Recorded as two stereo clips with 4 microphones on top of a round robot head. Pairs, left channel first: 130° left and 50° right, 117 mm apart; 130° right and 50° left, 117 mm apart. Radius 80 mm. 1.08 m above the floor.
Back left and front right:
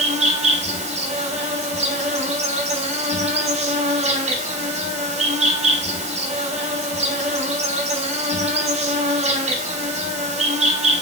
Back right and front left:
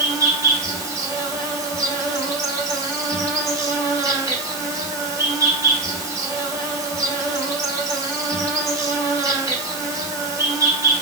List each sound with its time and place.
0.0 s an insect: 15° right, 3.5 m